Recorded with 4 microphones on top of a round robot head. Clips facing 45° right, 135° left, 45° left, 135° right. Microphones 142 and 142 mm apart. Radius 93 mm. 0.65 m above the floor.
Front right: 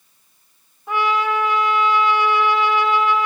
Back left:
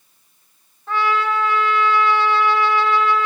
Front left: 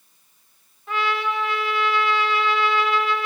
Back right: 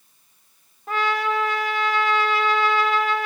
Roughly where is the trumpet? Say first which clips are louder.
Even, back right 1 dB; behind right.